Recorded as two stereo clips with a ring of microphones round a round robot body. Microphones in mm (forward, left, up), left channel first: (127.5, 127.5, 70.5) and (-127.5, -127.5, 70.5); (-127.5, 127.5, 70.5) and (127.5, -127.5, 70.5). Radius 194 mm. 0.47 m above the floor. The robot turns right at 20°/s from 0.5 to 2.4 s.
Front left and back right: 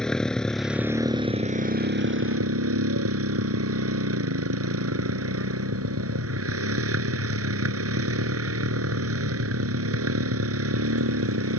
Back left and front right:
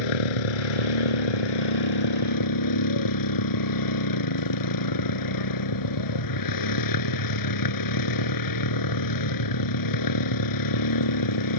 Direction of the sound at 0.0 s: 135° left.